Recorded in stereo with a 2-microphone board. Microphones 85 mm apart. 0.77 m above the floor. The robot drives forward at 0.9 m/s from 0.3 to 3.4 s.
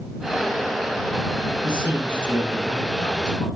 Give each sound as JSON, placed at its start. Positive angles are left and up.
{"t": 1.6, "sound": "a man speaking", "side_deg": 60, "distance_m": 7.5}